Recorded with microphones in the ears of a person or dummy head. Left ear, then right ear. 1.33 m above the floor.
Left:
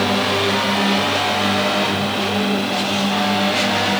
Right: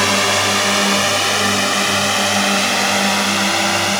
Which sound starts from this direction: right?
A drone, at 0.0 s.